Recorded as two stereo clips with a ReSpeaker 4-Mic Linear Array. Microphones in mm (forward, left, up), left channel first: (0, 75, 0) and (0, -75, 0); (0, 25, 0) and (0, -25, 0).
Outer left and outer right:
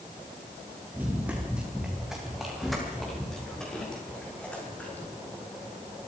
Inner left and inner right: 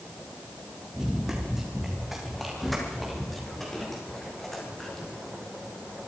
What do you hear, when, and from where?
0.9 s running footsteps: 10° right (ahead or behind), 7.5 m; by 5.1 s 10° left (ahead or behind), 11.5 m